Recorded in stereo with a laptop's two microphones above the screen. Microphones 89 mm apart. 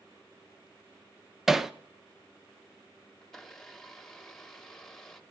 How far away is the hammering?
About 0.6 m.